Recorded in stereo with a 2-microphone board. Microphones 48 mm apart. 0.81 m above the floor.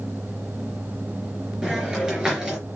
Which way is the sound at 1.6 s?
15° right (ahead or behind).